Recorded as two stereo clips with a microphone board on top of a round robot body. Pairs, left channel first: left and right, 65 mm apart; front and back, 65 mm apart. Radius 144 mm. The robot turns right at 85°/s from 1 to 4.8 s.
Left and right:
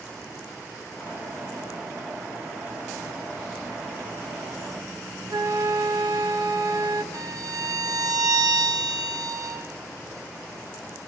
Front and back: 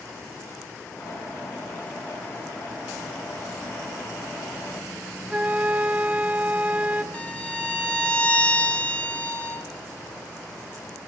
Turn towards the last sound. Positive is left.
turn(degrees=-70)